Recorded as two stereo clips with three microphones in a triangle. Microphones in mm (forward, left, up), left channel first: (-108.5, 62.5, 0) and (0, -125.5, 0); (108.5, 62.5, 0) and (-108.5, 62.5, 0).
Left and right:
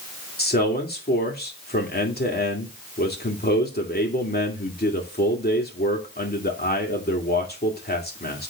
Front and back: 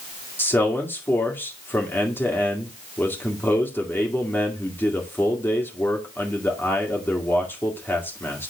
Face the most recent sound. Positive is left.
turn(degrees=80)